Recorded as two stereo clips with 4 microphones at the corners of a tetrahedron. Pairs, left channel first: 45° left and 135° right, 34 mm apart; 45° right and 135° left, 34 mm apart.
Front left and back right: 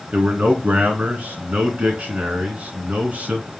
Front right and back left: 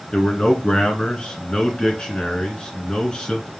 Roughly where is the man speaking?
Right.